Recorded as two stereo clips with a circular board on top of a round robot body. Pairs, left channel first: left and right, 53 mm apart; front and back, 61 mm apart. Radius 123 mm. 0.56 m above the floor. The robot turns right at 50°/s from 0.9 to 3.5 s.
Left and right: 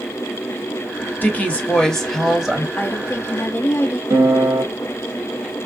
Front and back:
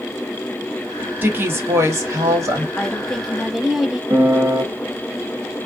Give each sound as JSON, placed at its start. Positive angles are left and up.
{"t": 1.2, "sound": "a woman speaking", "azimuth_deg": 130, "distance_m": 1.5}
{"t": 2.8, "sound": "a woman speaking", "azimuth_deg": 65, "distance_m": 1.0}
{"t": 4.1, "sound": "a piano", "azimuth_deg": -125, "distance_m": 0.7}